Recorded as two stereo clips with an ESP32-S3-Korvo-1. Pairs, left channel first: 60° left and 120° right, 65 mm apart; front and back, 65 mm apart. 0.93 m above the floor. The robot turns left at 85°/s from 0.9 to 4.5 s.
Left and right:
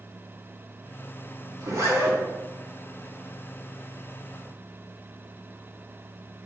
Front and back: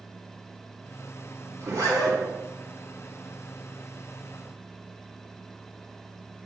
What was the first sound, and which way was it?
A zipper, 140° right.